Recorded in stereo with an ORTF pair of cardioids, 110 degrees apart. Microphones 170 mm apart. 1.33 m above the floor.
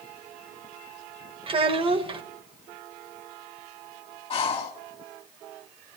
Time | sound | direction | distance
1.5 | a child speaking | 35° right | 1.0 m
4.3 | breathing | 35° left | 1.3 m